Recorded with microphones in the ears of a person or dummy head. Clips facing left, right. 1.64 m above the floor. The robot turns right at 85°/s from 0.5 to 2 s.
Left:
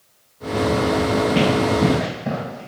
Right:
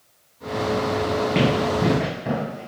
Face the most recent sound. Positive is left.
turn(degrees=0)  # may be behind; listen again after turning